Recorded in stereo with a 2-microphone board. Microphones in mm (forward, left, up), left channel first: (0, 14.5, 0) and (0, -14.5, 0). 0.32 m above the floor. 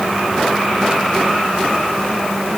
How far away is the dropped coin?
No dropped coin in this recording.